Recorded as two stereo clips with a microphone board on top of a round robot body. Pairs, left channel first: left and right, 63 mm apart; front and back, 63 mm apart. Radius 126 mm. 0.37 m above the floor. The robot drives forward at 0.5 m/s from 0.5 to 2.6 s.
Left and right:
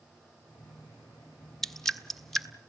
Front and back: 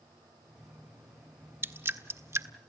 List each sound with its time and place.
1.6 s dripping: 170° left, 1.4 m; by 2.5 s 175° left, 1.7 m